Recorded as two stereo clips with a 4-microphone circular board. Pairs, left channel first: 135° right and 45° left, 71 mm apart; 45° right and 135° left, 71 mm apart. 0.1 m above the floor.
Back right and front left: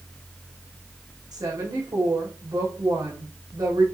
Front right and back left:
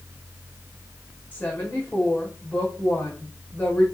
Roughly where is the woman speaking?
Ahead.